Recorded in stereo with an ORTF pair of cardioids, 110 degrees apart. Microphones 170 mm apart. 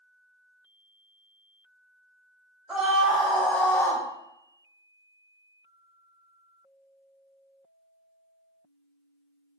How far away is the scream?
About 1.7 m.